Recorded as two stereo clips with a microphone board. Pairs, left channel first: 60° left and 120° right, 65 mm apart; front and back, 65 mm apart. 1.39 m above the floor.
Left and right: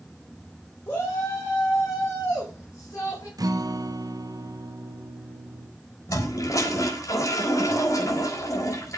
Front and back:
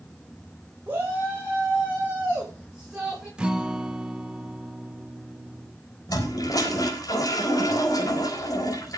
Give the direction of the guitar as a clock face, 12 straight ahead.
3 o'clock.